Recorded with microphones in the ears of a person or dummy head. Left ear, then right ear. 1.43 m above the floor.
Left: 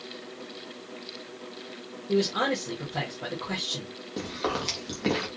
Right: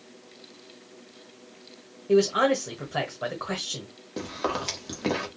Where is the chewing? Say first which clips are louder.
Right 1 dB; 5° right (ahead or behind), 1.3 m.